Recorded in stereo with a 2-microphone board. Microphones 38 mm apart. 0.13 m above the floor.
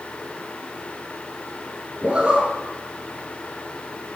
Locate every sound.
2.0 s a zipper: 30° right (ahead or behind), 1.7 m